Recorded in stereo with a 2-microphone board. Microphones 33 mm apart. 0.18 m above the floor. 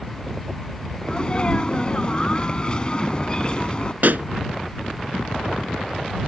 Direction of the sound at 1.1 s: 30° left (ahead or behind).